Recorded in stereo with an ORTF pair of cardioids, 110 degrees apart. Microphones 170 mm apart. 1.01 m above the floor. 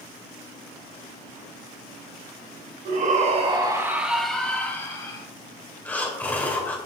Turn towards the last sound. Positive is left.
turn(degrees=10)